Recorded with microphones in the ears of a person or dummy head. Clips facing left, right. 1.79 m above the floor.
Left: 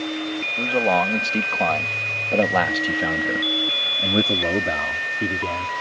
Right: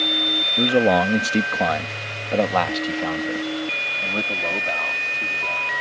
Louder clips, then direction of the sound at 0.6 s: Right 4 dB; 30° right (ahead or behind).